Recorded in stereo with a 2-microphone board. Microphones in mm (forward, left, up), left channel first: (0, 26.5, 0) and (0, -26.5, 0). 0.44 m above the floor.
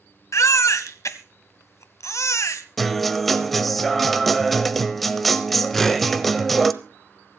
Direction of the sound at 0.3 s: 70° left (ahead or behind).